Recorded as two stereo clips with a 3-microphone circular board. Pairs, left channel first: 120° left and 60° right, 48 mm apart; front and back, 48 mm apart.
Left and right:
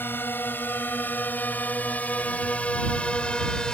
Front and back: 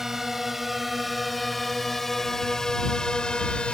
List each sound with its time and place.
0.0 s a drone: 100° left; by 3.8 s 55° left